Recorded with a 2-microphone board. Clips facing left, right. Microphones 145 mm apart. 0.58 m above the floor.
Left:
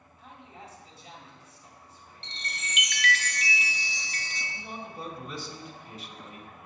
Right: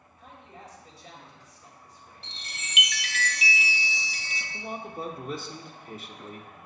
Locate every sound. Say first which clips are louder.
0.2 s a man speaking: even; 50° right (ahead or behind), 3 m
2.2 s a chime: left 5 dB; 5° right (ahead or behind), 0.6 m
4.5 s a man speaking: right 6 dB; 50° right (ahead or behind), 1.1 m